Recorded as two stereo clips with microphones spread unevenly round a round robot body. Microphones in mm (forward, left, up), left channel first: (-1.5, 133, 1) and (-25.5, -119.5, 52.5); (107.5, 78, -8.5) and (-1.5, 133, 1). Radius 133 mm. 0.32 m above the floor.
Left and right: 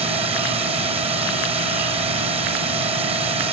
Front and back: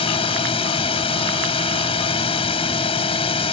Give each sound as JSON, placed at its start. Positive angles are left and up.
{"t": 0.0, "sound": "a drone", "azimuth_deg": -25}